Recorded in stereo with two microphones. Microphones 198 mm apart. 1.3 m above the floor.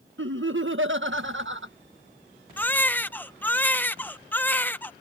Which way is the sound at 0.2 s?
80° right.